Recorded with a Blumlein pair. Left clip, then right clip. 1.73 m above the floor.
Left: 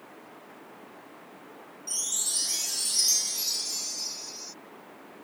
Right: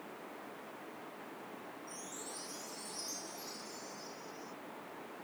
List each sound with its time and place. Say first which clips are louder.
1.9 s a chime: left 20 dB; 50° left